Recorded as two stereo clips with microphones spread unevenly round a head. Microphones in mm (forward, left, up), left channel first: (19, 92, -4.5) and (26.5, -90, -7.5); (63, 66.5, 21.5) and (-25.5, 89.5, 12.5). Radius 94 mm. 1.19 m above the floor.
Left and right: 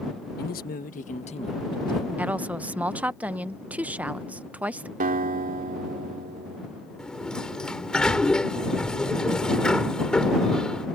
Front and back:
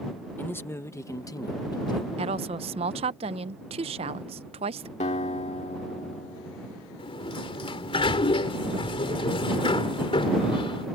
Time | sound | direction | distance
0.4 | a man speaking | 55° left | ?
2.2 | a woman speaking | 170° right | ?
5.0 | a guitar | 45° right | ?
7.0 | a sliding door | 5° left | ?